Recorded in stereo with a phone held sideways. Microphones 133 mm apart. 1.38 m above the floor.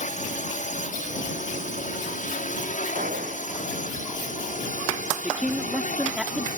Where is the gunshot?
80° right.